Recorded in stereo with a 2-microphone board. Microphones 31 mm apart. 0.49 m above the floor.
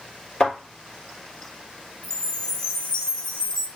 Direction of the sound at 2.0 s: 35° left (ahead or behind).